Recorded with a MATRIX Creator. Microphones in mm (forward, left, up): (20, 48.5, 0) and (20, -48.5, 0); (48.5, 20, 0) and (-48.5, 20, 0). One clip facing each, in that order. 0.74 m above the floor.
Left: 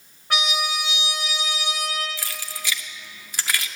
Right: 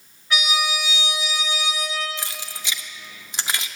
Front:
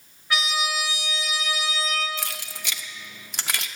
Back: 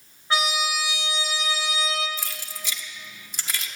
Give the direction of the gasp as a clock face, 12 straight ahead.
No gasp in this recording.